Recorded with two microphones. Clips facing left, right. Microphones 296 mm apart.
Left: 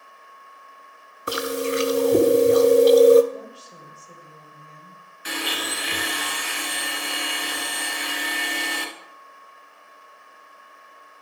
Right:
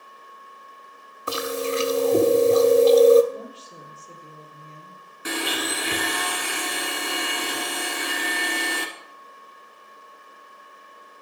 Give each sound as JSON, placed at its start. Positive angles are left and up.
{"t": 1.3, "sound": "chewing", "side_deg": 20, "distance_m": 0.8}
{"t": 3.3, "sound": "a woman speaking", "side_deg": -45, "distance_m": 3.0}
{"t": 5.2, "sound": "a blender", "side_deg": -60, "distance_m": 1.3}